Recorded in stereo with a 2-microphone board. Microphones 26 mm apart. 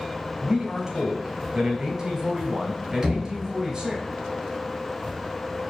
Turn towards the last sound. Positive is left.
turn(degrees=-25)  # may be behind; listen again after turning